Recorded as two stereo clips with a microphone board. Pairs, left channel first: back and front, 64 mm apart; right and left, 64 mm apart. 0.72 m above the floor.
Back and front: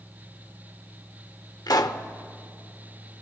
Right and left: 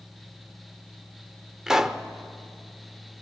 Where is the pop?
175° left, 0.8 m.